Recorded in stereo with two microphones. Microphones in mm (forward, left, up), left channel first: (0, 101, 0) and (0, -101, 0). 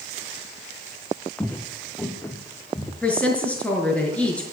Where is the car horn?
I don't hear a car horn.